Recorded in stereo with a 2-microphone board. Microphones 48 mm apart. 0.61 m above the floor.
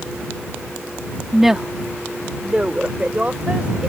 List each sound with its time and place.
1.3 s a woman speaking: 5° right (ahead or behind); by 3.9 s 30° right (ahead or behind)